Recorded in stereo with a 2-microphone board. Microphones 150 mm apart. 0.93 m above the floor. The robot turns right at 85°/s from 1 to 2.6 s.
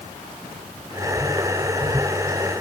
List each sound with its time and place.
Only background noise.